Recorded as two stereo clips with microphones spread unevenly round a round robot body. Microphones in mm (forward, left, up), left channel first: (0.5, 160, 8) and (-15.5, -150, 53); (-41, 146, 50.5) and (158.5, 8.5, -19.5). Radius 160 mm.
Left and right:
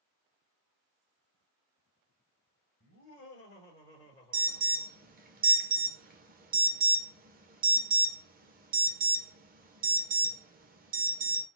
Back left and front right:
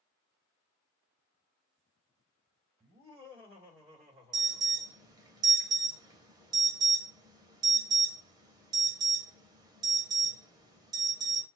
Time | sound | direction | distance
2.8 | laughter | 50° left | 2 m
4.3 | an alarm | 45° right | 0.8 m